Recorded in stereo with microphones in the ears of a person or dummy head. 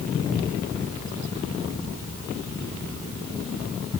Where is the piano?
I don't hear a piano.